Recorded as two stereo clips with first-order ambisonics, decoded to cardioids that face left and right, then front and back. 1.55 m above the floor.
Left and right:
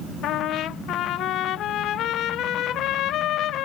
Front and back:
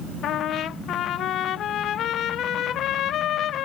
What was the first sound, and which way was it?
A trumpet, 45° left.